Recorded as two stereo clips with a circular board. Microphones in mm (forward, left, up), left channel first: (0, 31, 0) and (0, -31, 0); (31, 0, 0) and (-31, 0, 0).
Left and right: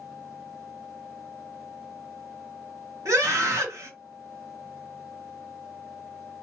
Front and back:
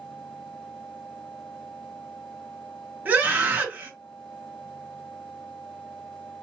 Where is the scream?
115° right, 2 m.